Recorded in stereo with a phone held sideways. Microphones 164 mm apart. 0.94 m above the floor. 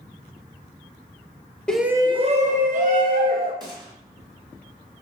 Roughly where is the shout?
Centre.